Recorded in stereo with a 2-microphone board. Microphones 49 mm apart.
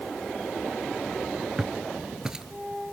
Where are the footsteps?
15° right (ahead or behind), 1.1 m.